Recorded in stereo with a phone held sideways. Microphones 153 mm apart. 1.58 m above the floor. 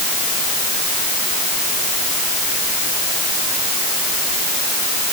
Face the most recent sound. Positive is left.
No sound to turn to.